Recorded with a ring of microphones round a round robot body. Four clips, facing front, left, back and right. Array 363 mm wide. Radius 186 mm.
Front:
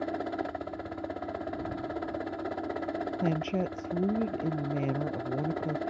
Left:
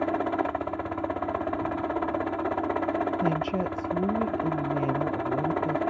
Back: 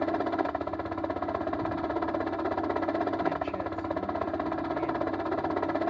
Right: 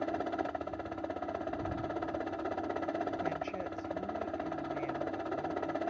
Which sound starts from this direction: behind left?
A helicopter, at 0.0 s.